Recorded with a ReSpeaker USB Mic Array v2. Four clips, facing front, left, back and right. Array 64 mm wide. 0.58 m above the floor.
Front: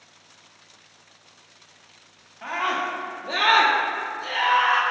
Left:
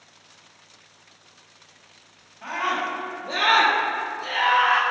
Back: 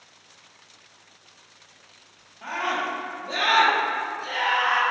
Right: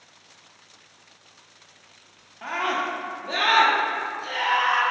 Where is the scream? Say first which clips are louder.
Even, front 1 dB; 70° right, 1.6 m; by 4.8 s 70° left, 1.5 m.